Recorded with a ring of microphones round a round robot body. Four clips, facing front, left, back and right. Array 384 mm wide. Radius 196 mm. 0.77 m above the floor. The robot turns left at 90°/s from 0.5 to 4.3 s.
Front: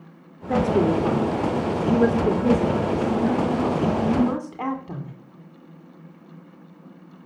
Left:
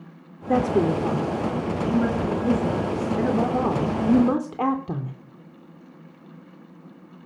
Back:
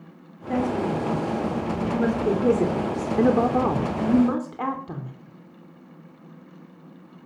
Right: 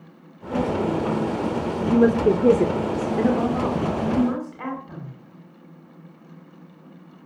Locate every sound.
0.5 s a woman speaking: 75° left, 2.5 m; by 5.1 s 95° left, 2.5 m